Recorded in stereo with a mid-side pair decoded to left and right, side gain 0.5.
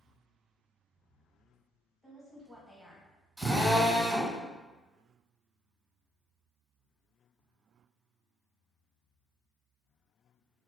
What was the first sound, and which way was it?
A woman speaking, 15° right.